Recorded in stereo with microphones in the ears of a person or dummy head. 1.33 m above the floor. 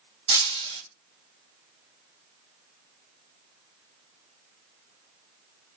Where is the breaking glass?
35° right (ahead or behind), 5 m.